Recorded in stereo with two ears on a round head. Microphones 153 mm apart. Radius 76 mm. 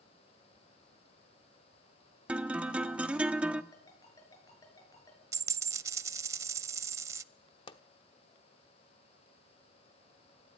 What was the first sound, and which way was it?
A guitar, 10° right (ahead or behind).